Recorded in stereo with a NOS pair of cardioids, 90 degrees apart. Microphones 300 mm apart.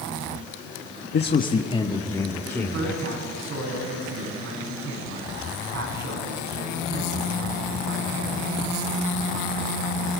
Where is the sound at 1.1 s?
40° left, 1.6 m; by 3.0 s straight ahead, 3.5 m.